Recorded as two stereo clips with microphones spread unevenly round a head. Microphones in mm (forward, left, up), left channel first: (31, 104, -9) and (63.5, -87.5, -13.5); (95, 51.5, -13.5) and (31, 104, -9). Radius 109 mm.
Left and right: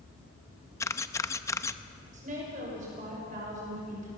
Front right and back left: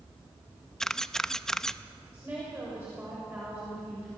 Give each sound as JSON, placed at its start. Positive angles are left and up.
{"t": 0.8, "sound": "a camera shutter", "azimuth_deg": 45, "distance_m": 0.7}
{"t": 2.1, "sound": "a woman speaking", "azimuth_deg": -140, "distance_m": 6.5}